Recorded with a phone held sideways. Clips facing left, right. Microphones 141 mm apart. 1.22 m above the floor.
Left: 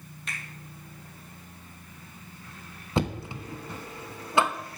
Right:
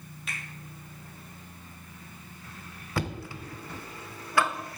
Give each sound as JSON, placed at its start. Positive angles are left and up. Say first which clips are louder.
{"t": 0.3, "sound": "a finger snap", "louder": "even", "side_deg": -5, "distance_m": 2.5}
{"t": 3.0, "sound": "knocking", "louder": "left 4 dB", "side_deg": 20, "distance_m": 0.7}